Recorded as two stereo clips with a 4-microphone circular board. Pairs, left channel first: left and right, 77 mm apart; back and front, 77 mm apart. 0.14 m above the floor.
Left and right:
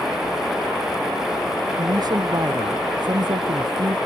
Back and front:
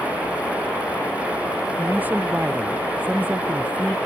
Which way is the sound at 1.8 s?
65° right.